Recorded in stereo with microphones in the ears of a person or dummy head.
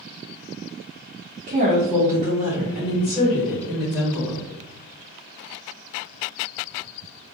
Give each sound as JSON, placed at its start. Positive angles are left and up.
{"t": 1.5, "sound": "a woman speaking", "side_deg": -35, "distance_m": 0.7}